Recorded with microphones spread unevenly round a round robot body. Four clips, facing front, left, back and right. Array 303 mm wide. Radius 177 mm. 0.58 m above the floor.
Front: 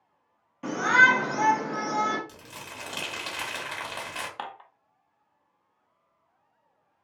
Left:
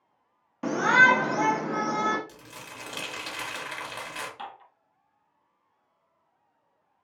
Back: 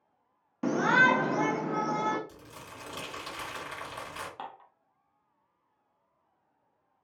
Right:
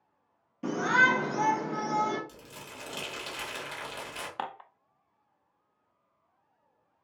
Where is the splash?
No splash in this recording.